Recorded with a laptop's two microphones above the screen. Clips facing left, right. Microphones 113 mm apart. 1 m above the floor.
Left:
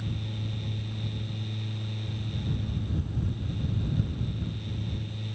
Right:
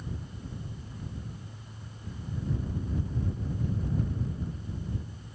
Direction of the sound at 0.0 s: 85° left.